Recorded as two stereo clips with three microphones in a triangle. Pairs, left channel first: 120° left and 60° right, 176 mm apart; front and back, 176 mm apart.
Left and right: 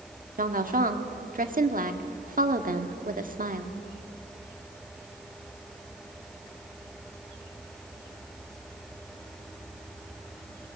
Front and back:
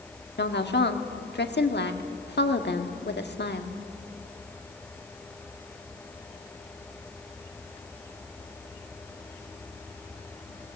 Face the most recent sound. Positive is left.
turn(degrees=-20)